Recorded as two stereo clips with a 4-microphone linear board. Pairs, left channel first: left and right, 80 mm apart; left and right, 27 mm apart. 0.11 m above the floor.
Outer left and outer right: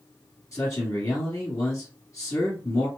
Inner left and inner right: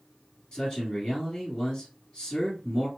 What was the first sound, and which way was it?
A man speaking, 35° left (ahead or behind).